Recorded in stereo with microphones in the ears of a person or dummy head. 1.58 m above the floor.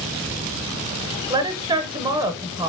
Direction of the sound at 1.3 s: 20° right (ahead or behind).